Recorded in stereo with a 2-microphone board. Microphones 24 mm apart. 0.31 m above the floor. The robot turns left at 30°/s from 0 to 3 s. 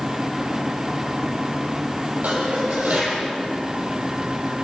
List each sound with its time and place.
2.2 s dishes clattering: 80° right, 7.5 m; by 3.2 s 70° right (ahead or behind), 7.5 m